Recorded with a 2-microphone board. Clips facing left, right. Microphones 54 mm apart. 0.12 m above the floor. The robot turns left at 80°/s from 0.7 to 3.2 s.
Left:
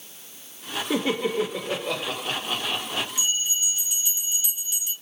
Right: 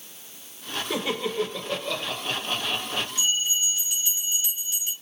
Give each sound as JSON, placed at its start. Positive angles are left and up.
{"t": 0.9, "sound": "laughter", "azimuth_deg": 135, "distance_m": 1.7}
{"t": 3.2, "sound": "a bell", "side_deg": -35, "distance_m": 2.0}